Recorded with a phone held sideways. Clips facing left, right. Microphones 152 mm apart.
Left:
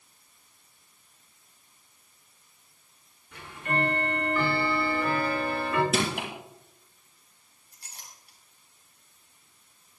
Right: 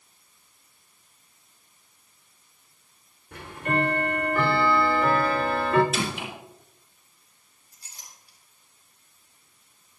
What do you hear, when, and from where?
3.3 s ticking: 60° right (ahead or behind), 3 m
5.9 s crushing: 60° left (ahead or behind), 7.5 m
7.7 s a clink: 65° left (ahead or behind), 6.5 m